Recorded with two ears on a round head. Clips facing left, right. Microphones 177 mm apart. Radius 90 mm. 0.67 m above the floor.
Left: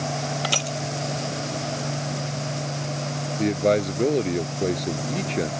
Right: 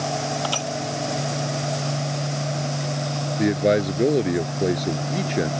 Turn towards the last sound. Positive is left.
turn(degrees=-15)  # may be behind; listen again after turning